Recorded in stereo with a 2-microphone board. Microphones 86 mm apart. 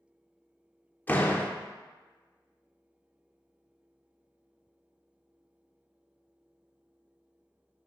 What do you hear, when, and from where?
1.1 s a door slam: 20° left (ahead or behind), 0.6 m